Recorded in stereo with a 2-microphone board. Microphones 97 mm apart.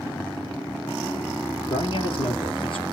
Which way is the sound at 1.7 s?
60° left (ahead or behind).